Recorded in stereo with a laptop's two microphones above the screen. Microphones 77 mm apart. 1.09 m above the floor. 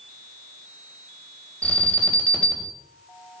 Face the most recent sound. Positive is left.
turn(degrees=15)  # may be behind; listen again after turning